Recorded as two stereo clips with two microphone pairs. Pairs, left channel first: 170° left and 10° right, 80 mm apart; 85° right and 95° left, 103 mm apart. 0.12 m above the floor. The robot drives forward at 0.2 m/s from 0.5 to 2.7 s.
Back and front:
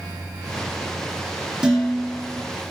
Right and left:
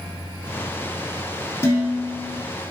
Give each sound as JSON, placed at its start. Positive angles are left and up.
{"t": 1.6, "sound": "dishes clattering", "azimuth_deg": -85, "distance_m": 0.9}